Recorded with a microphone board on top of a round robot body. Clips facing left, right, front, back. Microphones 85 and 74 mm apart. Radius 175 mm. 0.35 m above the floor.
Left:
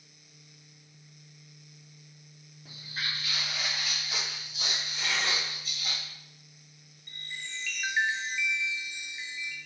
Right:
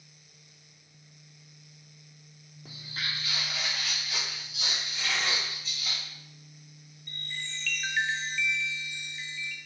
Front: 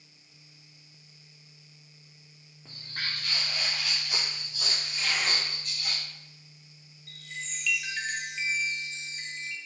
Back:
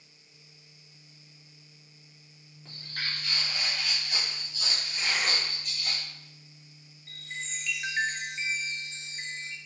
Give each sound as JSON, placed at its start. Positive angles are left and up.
{"t": 2.6, "sound": "footsteps", "azimuth_deg": -80, "distance_m": 0.6}
{"t": 4.9, "sound": "tearing paper", "azimuth_deg": 120, "distance_m": 1.7}
{"t": 7.1, "sound": "a chime", "azimuth_deg": 155, "distance_m": 0.7}